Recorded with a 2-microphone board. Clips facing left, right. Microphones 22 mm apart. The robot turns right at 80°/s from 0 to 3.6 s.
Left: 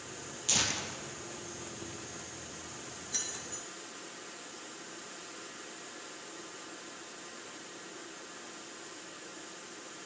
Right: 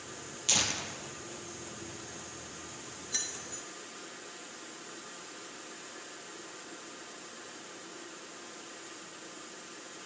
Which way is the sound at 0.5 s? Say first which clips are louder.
Right 1 dB; 20° right (ahead or behind).